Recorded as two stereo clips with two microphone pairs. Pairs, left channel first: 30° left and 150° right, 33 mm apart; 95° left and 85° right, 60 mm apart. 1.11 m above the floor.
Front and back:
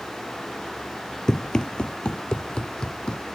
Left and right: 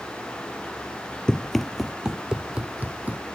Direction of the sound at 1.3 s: 45° left.